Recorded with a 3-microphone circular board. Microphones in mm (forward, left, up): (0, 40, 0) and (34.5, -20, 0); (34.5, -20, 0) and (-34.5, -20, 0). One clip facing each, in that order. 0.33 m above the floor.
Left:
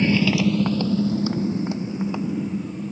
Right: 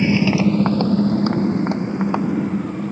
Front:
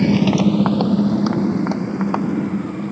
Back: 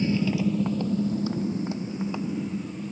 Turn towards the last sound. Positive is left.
turn(degrees=-30)